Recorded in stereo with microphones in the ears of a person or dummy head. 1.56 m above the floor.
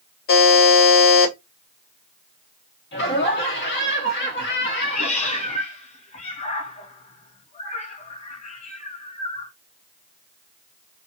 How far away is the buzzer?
About 2.5 m.